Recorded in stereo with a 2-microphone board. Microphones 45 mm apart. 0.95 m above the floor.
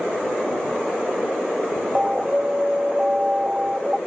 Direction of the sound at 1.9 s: 20° right (ahead or behind).